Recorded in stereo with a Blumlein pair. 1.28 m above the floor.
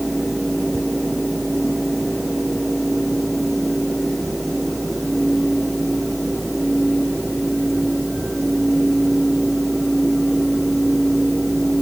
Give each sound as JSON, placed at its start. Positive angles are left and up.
{"t": 0.0, "sound": "a fan", "azimuth_deg": -5}